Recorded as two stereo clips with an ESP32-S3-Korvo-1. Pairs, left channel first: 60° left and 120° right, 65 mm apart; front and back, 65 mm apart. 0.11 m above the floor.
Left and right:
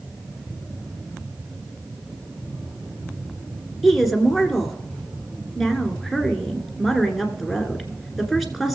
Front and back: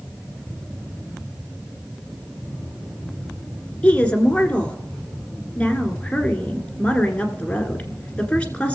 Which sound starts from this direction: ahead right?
A woman speaking, at 3.8 s.